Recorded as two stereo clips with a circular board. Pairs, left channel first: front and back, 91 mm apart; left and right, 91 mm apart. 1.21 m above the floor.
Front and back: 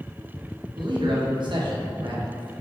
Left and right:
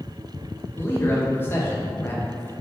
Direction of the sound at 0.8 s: 155° left.